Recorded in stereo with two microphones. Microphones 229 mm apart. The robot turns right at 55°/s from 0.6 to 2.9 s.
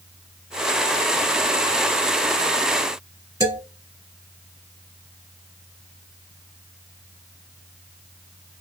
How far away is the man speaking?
About 1.6 m.